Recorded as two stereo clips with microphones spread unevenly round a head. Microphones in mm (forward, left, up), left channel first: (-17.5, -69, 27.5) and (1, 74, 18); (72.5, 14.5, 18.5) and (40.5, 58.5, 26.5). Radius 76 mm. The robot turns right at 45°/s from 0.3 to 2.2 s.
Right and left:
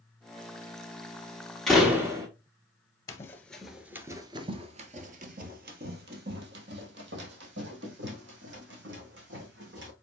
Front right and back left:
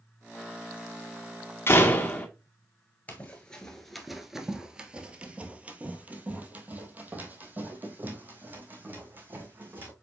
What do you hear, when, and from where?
1.7 s a door slam: 10° right, 1.9 m; by 2.3 s 15° left, 1.9 m
3.1 s running footsteps: 115° right, 1.0 m; by 9.9 s 75° left, 4 m